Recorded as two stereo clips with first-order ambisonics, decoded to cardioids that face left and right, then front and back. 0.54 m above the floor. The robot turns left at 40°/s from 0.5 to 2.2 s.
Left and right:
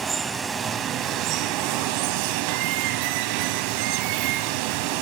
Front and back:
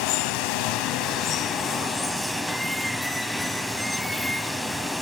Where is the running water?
15° right, 1.3 m; by 5.0 s 85° right, 1.3 m.